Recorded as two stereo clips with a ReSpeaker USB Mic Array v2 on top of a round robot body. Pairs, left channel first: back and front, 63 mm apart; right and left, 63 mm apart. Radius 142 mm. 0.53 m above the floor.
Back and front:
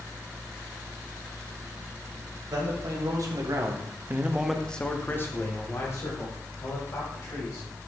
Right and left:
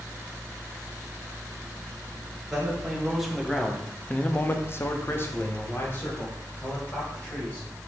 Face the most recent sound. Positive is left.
turn(degrees=-155)